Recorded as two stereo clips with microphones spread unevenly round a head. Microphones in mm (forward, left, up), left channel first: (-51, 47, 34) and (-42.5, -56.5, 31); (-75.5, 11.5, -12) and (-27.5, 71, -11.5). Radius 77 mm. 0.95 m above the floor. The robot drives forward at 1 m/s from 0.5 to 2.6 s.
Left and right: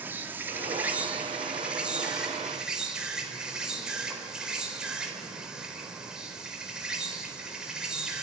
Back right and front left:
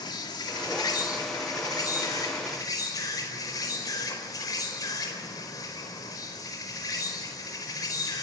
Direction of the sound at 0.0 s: 155° right.